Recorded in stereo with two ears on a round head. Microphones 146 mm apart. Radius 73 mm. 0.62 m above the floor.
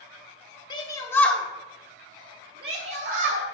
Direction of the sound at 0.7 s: 30° left (ahead or behind).